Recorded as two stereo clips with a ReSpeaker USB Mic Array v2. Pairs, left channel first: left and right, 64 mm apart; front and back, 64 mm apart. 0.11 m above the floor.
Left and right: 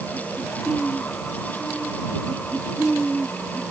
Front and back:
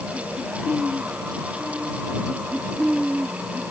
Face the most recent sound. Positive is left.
No sound to turn to.